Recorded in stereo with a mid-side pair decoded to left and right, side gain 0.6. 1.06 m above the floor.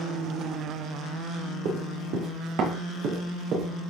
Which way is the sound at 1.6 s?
60° right.